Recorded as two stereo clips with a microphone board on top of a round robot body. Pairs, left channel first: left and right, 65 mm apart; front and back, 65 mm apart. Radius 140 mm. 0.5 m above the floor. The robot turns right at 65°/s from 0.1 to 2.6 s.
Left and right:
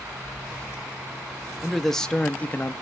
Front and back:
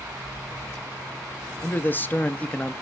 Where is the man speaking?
5° right, 0.9 m; by 2.7 s 60° left, 0.9 m.